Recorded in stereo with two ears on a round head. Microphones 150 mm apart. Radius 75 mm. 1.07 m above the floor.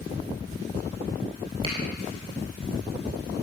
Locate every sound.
1.6 s a finger snap: 35° right (ahead or behind), 7.5 m